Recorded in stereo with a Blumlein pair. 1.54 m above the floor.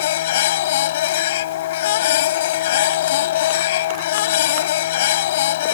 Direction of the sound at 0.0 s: 55° left.